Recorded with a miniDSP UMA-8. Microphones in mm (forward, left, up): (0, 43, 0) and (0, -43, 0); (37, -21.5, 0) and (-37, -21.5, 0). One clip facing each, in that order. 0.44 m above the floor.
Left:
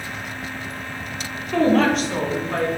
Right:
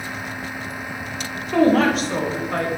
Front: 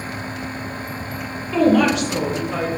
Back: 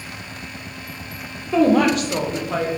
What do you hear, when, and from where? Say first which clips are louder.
1.5 s a woman speaking: right 1 dB, even; 165° right, 0.9 m; by 2.7 s 175° left, 1.4 m